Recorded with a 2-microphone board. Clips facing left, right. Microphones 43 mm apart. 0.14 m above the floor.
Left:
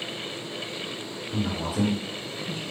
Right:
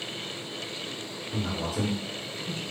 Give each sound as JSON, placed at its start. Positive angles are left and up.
{"t": 1.3, "sound": "a man speaking", "side_deg": 5, "distance_m": 1.6}